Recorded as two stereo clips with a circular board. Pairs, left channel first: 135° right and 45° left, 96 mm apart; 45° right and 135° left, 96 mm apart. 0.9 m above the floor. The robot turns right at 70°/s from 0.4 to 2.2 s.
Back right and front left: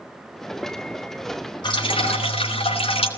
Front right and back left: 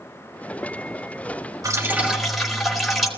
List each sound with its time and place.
1.6 s dripping: 175° right, 3.5 m; by 3.1 s 135° right, 3.5 m